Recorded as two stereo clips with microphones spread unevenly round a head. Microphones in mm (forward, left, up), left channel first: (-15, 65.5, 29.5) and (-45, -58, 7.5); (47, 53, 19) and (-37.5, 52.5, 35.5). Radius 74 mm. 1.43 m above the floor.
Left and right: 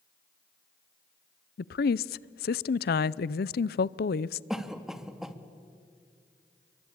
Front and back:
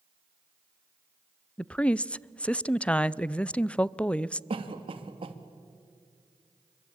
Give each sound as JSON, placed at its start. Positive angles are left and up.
{"t": 1.6, "sound": "a woman speaking", "azimuth_deg": 75, "distance_m": 0.5}
{"t": 4.5, "sound": "a cough", "azimuth_deg": 170, "distance_m": 2.0}